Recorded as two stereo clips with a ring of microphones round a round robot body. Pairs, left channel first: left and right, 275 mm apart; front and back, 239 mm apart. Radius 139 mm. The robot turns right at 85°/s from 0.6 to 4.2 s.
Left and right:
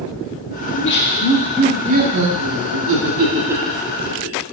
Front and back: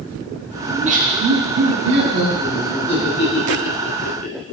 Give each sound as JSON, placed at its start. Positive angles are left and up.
{"t": 0.7, "sound": "laughter", "azimuth_deg": 110, "distance_m": 1.3}